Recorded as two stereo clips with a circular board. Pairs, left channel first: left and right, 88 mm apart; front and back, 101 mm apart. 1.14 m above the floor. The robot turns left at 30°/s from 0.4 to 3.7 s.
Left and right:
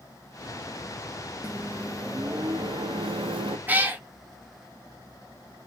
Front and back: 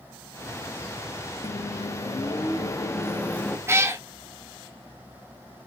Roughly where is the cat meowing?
Behind right.